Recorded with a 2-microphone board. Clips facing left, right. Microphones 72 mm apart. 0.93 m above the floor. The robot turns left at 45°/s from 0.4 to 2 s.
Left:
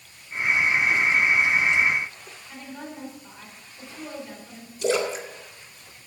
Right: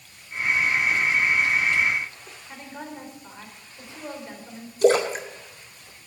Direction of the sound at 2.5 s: 25° right (ahead or behind).